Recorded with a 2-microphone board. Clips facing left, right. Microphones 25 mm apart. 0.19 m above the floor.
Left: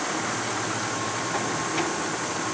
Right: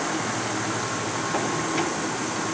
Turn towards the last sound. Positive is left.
No sound to turn to.